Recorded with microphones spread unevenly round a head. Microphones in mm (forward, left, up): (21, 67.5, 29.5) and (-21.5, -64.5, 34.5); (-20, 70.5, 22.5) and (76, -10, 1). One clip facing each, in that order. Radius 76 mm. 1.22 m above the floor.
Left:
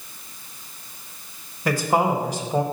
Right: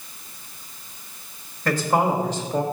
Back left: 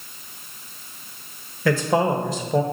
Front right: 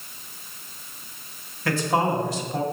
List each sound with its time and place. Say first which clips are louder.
1.6 s a man speaking: even, back left 3 dB; 150° left, 0.9 m